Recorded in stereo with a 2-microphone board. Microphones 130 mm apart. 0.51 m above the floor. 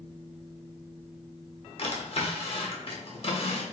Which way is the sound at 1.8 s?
50° left (ahead or behind).